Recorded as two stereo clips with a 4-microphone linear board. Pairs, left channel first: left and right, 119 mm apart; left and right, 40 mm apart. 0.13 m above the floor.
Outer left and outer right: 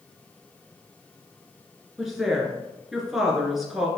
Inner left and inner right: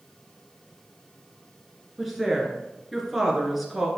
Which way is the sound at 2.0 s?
Centre (ahead or behind).